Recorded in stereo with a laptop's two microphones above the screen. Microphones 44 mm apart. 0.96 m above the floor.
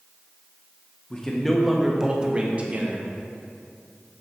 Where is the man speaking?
20° left (ahead or behind), 0.8 m; by 3.1 s 40° right (ahead or behind), 1.1 m.